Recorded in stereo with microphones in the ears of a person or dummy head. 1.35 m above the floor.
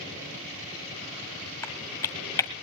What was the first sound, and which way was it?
Typing on a keyboard, 15° left (ahead or behind).